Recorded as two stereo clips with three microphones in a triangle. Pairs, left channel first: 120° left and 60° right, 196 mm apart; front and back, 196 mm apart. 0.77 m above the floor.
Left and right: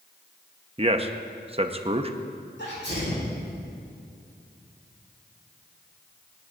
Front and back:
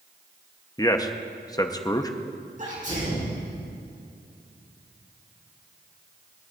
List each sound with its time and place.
0.8 s a man speaking: 50° right, 0.7 m
2.6 s a sneeze: 135° left, 5 m